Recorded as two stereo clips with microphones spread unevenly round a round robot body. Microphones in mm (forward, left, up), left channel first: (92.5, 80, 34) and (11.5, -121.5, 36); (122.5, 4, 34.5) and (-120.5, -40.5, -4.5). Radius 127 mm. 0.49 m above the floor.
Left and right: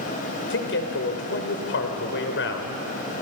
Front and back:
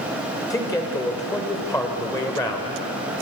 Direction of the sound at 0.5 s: 90° left.